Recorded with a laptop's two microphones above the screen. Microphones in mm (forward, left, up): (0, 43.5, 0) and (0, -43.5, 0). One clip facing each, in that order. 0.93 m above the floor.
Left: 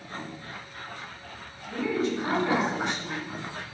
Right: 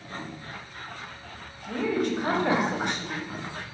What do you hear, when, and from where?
1.7 s a woman speaking: 55° right (ahead or behind), 0.7 m